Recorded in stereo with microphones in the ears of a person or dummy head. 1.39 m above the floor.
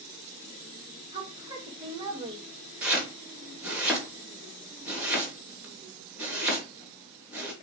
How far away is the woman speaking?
About 2.0 m.